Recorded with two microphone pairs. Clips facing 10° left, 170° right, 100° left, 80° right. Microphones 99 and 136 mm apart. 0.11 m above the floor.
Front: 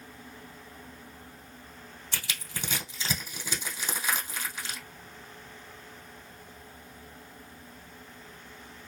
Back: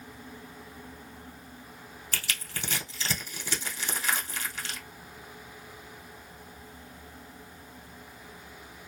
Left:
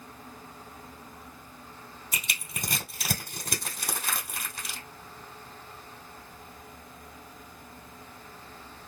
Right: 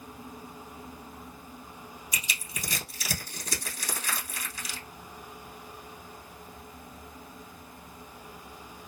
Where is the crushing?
85° left, 1.5 m.